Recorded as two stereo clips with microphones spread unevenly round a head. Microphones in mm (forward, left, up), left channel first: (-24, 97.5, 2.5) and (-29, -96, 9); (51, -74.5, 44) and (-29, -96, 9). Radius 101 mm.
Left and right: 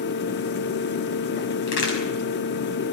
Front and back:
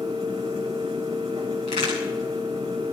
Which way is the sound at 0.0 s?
125° left.